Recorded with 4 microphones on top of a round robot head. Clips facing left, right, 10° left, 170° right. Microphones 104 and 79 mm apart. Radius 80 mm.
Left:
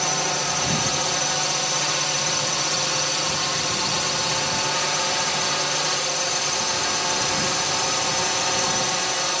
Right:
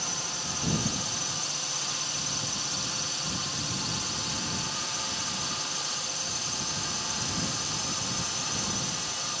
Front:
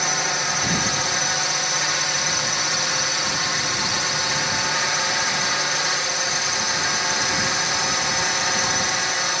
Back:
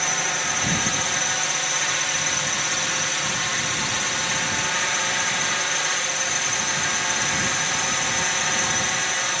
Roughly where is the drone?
Left.